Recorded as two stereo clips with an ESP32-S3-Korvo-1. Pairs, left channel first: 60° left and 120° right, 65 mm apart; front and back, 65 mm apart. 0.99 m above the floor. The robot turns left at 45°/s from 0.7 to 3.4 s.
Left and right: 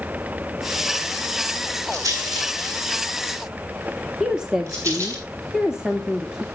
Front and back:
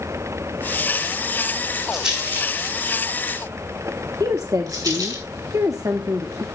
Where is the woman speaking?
160° left, 1.5 m.